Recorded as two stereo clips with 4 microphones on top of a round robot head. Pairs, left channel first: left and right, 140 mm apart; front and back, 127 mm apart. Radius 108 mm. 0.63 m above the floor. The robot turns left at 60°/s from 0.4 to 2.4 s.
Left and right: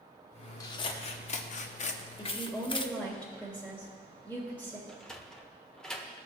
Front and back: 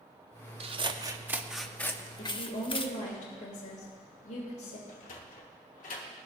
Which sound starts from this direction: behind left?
Scissors, at 0.6 s.